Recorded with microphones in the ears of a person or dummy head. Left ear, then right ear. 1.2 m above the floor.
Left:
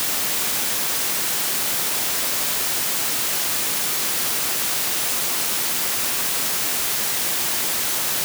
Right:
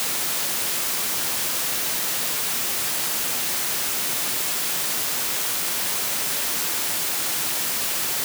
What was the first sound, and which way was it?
Only background noise.